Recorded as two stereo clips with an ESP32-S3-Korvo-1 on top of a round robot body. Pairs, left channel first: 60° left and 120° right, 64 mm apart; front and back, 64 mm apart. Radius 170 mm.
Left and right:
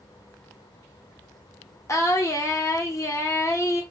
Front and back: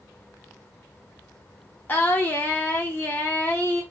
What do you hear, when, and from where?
1.9 s singing: 55° left, 1.3 m